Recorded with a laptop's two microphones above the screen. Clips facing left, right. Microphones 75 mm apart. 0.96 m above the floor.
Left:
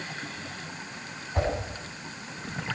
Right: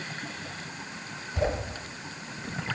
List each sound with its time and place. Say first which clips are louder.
1.4 s a whoosh: even; 35° left (ahead or behind), 9.5 m